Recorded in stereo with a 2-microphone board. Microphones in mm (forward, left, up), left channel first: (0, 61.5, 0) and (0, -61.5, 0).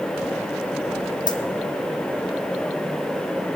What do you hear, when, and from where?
1.3 s a dropped coin: 40° left (ahead or behind), 1.3 m